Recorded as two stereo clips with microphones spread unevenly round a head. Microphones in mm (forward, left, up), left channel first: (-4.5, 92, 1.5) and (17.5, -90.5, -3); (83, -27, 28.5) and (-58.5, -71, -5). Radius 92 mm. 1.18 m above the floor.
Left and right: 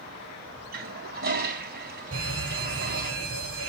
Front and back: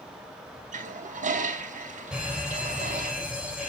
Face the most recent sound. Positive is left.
turn(degrees=-80)